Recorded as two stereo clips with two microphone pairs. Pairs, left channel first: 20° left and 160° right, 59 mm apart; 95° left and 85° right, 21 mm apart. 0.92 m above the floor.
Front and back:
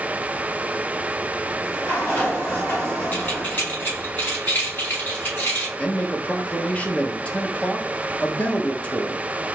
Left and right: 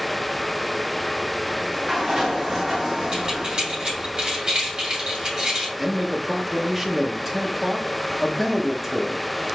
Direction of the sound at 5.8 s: 15° right.